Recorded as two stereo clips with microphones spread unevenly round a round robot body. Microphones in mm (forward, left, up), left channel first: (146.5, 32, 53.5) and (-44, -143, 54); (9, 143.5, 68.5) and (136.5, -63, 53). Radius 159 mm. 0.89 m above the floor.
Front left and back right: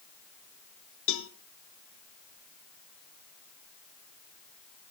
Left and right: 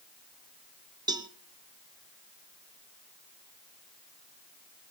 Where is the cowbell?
15° left, 1.3 m.